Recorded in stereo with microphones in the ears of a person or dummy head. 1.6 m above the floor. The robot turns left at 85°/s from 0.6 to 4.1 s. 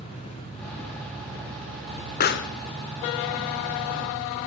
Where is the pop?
45° left (ahead or behind), 1.2 m; by 2.5 s 65° left (ahead or behind), 1.2 m.